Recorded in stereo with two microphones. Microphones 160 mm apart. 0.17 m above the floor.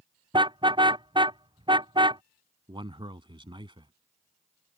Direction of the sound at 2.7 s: 30° right (ahead or behind).